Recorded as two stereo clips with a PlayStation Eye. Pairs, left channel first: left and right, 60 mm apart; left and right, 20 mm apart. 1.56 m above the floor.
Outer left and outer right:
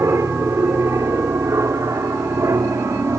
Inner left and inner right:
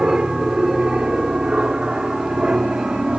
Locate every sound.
0.0 s an aircraft: 60° right (ahead or behind); by 3.2 s 65° right (ahead or behind)